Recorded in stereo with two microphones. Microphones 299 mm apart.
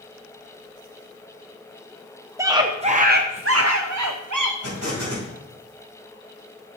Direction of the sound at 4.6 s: 60° right (ahead or behind).